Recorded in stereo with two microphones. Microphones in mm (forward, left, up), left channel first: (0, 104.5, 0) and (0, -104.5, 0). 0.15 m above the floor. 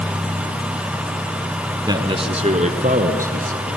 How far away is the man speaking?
About 1.1 m.